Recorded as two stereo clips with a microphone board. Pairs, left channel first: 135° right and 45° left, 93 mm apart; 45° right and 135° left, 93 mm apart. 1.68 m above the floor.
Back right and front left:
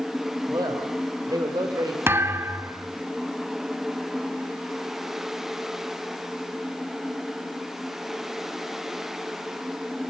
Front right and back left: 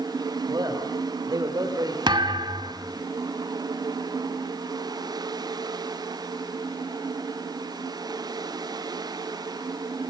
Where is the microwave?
No microwave in this recording.